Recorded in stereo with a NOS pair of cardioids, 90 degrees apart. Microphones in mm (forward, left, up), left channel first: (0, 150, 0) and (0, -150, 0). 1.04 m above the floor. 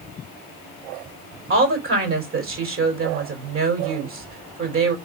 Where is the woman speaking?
45° right, 4 m.